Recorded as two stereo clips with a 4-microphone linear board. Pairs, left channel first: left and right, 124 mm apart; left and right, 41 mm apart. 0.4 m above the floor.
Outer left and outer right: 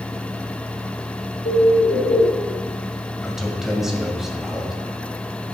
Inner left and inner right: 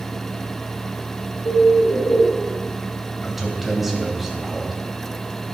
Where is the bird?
85° left, 0.7 m.